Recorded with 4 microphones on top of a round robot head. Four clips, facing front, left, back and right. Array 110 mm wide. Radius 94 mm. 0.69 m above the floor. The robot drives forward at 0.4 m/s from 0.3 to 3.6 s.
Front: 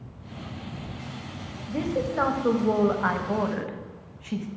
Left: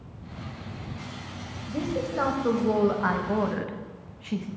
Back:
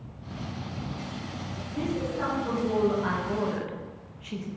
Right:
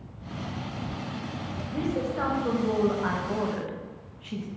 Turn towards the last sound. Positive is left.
turn(degrees=50)